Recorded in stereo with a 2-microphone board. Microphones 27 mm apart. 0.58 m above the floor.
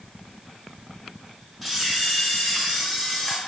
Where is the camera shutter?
5° right (ahead or behind), 0.8 m.